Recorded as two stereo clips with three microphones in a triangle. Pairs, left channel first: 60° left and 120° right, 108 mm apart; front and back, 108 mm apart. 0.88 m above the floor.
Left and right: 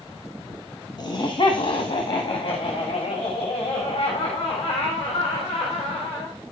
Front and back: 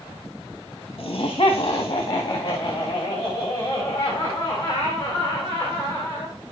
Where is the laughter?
30° left, 1.3 m; by 6.3 s 70° left, 4.5 m.